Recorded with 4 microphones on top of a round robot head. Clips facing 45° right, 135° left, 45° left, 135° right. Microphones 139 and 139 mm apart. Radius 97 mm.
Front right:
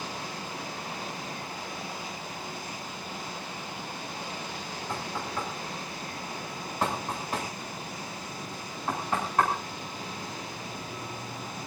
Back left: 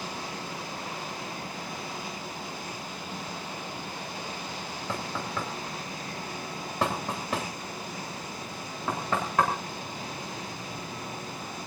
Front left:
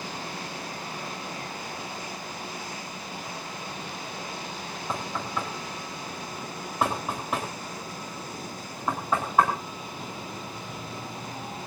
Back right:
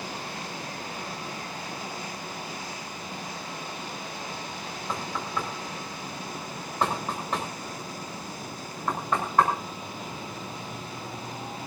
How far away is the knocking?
About 8.5 m.